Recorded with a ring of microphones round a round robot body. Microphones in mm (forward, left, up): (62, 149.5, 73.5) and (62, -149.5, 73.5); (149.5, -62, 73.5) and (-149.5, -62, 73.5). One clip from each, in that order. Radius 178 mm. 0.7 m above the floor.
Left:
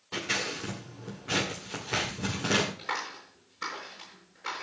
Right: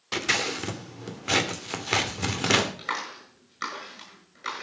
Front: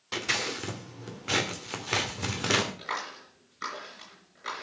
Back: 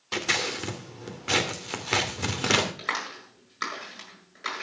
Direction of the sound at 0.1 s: 100° right.